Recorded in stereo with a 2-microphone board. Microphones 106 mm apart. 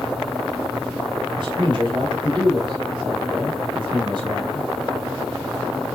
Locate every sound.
1.4 s a man speaking: 50° right (ahead or behind), 2.5 m